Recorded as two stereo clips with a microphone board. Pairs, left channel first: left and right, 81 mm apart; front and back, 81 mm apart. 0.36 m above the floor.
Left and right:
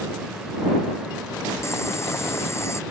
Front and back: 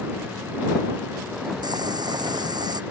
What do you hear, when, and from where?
1.6 s boiling: 145° left